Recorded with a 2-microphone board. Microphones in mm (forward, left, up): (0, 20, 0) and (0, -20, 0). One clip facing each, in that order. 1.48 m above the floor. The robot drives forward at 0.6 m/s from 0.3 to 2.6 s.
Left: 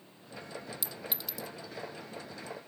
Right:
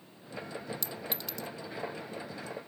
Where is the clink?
5° left (ahead or behind).